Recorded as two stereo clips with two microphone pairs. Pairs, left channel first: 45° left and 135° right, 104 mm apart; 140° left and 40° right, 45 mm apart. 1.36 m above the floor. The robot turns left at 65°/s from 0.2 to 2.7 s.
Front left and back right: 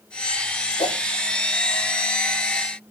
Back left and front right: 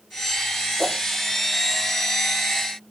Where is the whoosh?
50° left, 1.0 m; by 1.0 s 35° left, 1.0 m.